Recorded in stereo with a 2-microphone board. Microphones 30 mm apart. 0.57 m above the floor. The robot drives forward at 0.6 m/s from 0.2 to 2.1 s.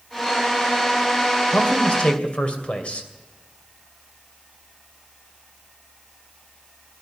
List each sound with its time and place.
1.5 s a man speaking: 55° left (ahead or behind), 2.5 m; by 3.1 s 50° left (ahead or behind), 2.5 m